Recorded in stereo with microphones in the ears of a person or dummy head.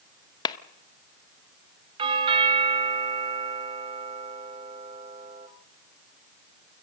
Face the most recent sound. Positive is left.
turn(degrees=-25)  # may be behind; listen again after turning